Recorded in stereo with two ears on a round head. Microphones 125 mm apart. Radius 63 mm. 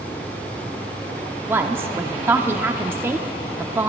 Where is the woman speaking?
15° right (ahead or behind), 0.7 m.